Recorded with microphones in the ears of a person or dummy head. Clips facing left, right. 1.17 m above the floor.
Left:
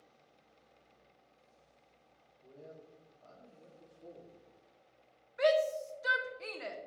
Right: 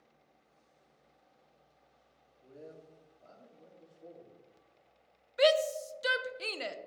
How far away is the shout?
About 0.5 m.